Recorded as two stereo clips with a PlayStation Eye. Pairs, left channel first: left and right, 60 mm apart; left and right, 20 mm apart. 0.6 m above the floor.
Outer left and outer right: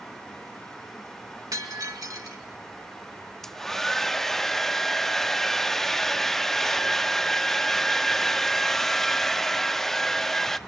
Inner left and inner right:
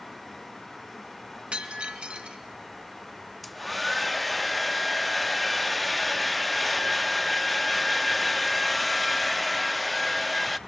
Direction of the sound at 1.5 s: 80° right.